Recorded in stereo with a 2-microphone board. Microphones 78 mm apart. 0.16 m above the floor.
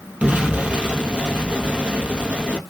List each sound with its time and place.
0.2 s an explosion: 15° right (ahead or behind), 1.3 m